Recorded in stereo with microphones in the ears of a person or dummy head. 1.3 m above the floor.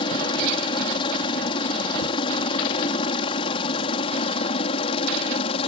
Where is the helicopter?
30° left (ahead or behind); by 5.7 s 35° left (ahead or behind).